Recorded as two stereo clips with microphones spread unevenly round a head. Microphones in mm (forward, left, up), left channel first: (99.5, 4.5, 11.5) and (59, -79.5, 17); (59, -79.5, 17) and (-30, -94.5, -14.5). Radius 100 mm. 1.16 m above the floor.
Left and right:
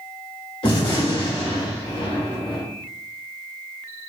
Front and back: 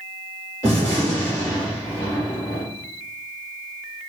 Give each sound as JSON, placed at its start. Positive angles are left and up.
{"t": 0.6, "sound": "a gunshot", "azimuth_deg": 50, "distance_m": 1.4}